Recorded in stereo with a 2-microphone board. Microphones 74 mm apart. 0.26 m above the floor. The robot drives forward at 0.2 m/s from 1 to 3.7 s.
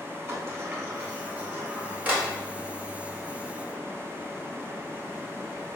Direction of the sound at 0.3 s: 30° right (ahead or behind).